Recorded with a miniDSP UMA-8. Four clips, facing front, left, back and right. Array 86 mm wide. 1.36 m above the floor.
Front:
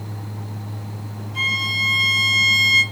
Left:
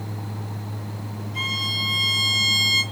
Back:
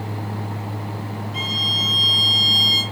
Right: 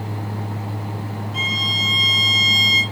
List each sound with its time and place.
1.3 s a violin: 130° right, 2.5 m